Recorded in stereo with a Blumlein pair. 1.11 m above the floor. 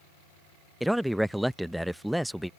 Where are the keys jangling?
No keys jangling in this recording.